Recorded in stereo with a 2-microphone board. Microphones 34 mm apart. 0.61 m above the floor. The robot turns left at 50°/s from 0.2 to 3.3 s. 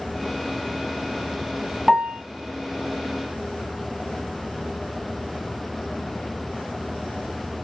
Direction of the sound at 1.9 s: Centre (ahead or behind).